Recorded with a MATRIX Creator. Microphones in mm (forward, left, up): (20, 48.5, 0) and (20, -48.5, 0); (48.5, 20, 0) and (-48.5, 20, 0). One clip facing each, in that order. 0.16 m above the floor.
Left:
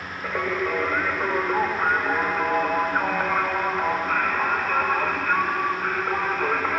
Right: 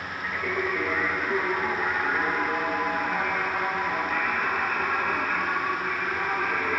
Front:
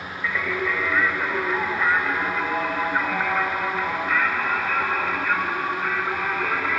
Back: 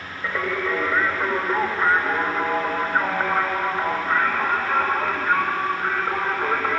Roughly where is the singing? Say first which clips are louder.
Left 4 dB, back 1 dB; behind left.